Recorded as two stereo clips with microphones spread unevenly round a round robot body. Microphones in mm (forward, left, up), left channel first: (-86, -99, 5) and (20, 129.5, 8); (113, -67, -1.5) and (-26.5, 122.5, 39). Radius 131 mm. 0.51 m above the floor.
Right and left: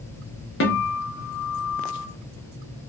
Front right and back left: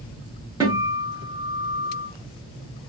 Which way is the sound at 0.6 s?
150° right.